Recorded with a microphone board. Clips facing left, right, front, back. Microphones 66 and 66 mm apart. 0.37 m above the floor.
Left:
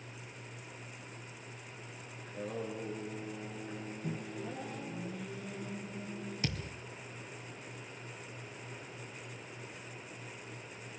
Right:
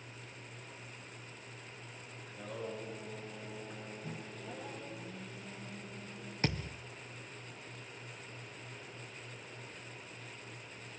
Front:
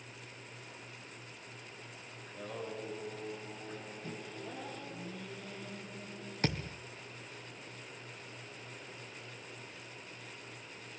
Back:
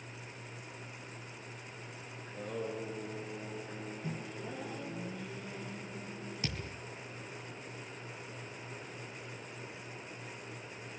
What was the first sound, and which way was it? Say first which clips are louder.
Singing: left 3 dB, back 3 dB; 120° left.